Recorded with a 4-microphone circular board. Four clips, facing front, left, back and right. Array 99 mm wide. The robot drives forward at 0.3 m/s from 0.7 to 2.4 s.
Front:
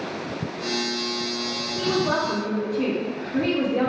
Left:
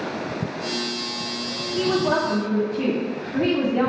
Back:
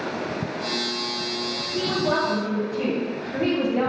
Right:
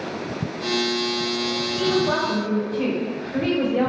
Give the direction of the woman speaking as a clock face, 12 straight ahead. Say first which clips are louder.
Left 1 dB, even; 8 o'clock.